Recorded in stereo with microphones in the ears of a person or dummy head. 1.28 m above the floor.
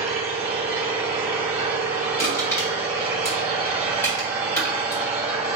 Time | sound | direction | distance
0.0 | an engine running | 10° right (ahead or behind) | 1.8 m
2.2 | crushing | 20° left (ahead or behind) | 1.5 m